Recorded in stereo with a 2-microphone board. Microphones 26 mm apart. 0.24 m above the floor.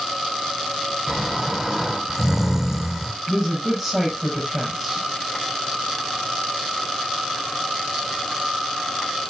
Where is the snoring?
20° right (ahead or behind), 1.2 m.